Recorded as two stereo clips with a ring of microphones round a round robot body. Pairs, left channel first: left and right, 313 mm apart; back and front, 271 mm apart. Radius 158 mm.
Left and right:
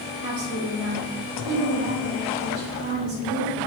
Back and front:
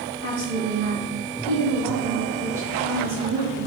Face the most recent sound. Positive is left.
turn(degrees=-115)